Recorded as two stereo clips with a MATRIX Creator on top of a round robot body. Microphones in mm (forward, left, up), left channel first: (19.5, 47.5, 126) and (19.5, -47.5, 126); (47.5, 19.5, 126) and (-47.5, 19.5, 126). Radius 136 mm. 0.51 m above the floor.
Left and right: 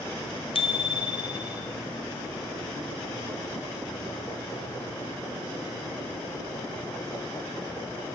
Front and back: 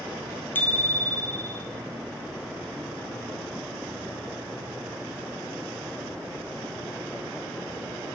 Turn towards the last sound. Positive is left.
turn(degrees=70)